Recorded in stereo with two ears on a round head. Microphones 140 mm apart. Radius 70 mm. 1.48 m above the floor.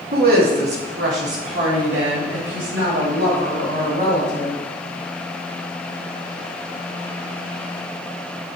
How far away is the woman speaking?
About 3 m.